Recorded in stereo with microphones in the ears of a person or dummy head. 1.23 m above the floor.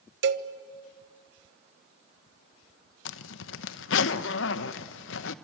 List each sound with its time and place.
0.2 s a cowbell: 65° right (ahead or behind), 1.2 m
3.0 s a zipper: 70° left (ahead or behind), 0.9 m